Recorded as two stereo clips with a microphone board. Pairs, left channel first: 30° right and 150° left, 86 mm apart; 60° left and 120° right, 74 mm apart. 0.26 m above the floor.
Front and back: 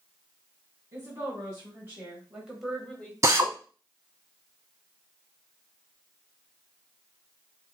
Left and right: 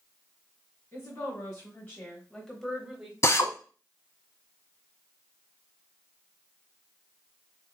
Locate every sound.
0.9 s a woman speaking: 110° left, 2 m; by 3.1 s 75° right, 1.2 m
3.2 s a drill: 105° left, 0.7 m